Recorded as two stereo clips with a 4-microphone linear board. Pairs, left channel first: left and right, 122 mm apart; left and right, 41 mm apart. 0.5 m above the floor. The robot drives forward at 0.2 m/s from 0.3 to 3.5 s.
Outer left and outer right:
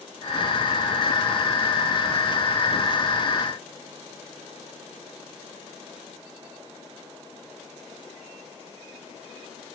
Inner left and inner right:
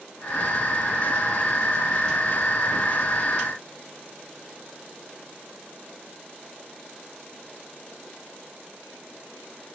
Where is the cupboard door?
No cupboard door in this recording.